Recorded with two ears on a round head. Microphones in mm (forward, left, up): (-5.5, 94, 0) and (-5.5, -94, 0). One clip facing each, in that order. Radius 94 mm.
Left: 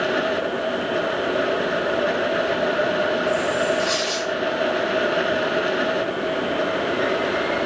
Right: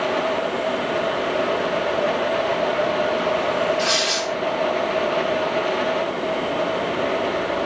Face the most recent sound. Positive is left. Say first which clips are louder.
# even
turn(degrees=-40)  # may be behind; listen again after turning